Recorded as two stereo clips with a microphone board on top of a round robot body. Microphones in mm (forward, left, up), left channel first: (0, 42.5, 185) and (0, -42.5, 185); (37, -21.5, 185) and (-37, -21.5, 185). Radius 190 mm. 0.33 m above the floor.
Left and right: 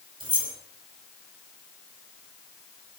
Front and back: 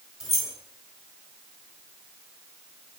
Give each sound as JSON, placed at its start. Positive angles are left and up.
{"t": 0.2, "sound": "keys jangling", "azimuth_deg": -95, "distance_m": 2.0}